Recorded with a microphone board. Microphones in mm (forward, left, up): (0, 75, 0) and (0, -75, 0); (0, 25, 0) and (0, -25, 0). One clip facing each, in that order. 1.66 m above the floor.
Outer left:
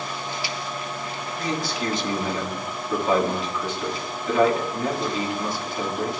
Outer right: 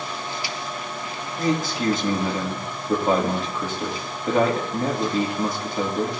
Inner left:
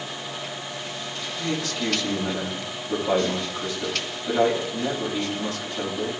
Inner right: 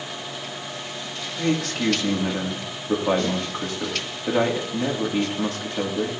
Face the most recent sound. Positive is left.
turn(degrees=-50)  # may be behind; listen again after turning